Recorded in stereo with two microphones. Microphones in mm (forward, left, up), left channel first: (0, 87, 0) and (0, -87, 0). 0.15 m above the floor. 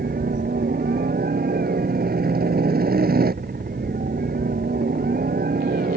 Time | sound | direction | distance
0.0 | a helicopter | 60° right (ahead or behind) | ?